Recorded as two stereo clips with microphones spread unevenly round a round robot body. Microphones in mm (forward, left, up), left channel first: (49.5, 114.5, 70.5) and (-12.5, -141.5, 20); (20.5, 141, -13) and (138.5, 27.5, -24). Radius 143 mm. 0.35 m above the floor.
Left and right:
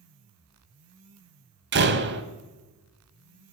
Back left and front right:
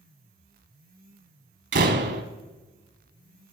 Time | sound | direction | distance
1.7 | a door slam | 60° right | 1.3 m